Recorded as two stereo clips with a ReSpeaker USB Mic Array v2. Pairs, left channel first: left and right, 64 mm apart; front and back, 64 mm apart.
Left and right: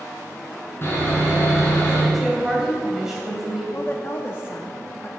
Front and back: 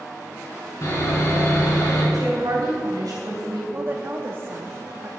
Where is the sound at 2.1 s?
170° right, 3 m.